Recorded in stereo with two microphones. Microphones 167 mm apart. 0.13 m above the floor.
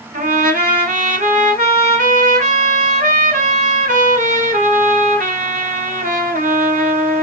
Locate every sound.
0.1 s a trumpet: 55° right (ahead or behind), 1.2 m